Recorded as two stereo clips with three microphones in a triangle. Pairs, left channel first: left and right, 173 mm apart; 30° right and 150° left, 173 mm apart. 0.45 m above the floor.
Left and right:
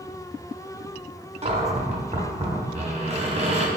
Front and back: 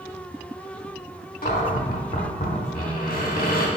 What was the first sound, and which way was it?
A cupboard door, 40° right.